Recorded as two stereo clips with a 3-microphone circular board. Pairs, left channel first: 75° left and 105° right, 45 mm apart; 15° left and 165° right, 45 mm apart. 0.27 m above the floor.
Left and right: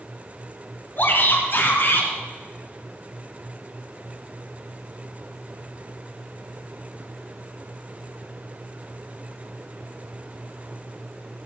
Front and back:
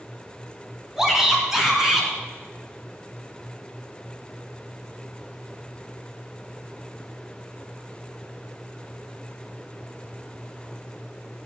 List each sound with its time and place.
1.0 s a shout: 115° left, 3 m; by 2.1 s 110° left, 3.5 m